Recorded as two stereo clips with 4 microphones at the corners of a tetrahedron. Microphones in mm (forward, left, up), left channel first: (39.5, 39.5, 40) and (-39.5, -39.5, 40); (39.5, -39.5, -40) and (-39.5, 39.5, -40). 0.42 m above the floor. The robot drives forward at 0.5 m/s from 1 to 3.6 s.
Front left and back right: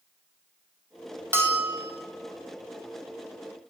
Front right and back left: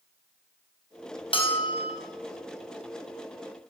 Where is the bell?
65° right, 2.5 m; by 1.9 s 75° right, 2.5 m.